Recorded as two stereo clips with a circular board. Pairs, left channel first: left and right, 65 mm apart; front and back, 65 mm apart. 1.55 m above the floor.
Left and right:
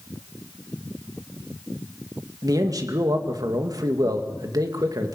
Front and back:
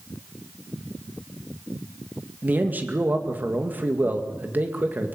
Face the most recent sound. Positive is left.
turn(degrees=-120)